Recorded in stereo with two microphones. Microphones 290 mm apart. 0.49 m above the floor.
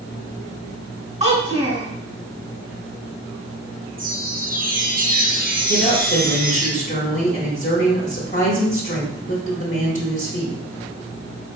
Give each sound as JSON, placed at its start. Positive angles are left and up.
{"t": 1.2, "sound": "a child speaking", "side_deg": -25, "distance_m": 2.5}
{"t": 4.0, "sound": "a chime", "side_deg": -30, "distance_m": 1.0}
{"t": 5.7, "sound": "a woman speaking", "side_deg": 30, "distance_m": 1.1}